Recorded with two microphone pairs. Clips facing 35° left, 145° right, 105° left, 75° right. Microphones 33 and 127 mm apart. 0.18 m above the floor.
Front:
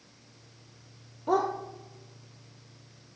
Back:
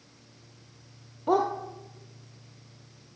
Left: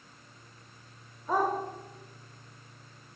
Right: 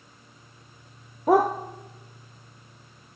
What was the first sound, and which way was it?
A dog barking, 70° right.